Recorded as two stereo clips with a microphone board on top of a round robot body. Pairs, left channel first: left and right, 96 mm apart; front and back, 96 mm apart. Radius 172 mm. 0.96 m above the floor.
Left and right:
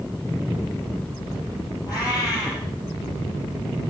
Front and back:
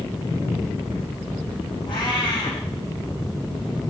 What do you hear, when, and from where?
1.9 s a cat meowing: 35° left, 6 m